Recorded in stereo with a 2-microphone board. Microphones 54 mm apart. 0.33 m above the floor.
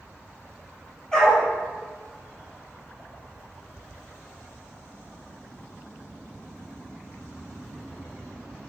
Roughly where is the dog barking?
Centre.